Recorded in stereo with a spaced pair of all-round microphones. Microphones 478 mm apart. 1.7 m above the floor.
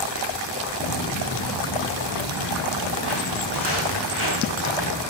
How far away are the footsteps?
About 2.5 m.